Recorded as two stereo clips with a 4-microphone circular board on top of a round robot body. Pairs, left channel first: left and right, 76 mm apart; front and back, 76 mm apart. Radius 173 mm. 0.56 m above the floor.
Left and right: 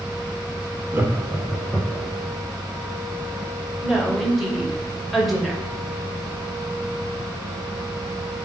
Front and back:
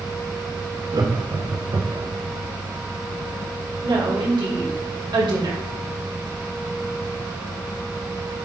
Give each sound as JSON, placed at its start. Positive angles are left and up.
{"t": 0.9, "sound": "laughter", "azimuth_deg": -150, "distance_m": 2.0}
{"t": 3.8, "sound": "a woman speaking", "azimuth_deg": 180, "distance_m": 3.0}